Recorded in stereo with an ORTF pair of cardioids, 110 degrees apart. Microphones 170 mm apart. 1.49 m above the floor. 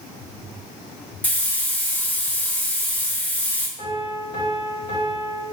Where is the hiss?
10° left, 0.9 m.